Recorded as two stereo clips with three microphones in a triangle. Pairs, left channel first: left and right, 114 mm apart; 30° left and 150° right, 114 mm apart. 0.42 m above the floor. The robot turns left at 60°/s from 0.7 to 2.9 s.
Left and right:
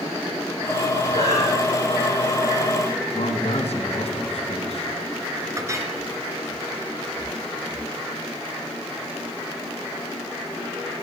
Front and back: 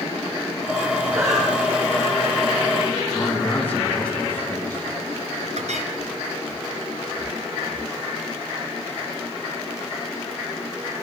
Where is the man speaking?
105° left, 5 m.